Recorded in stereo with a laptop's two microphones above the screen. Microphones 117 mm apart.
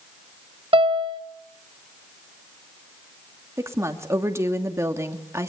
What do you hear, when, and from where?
0.7 s a piano: 50° right (ahead or behind), 1.4 m
3.6 s a woman speaking: 25° right (ahead or behind), 2.5 m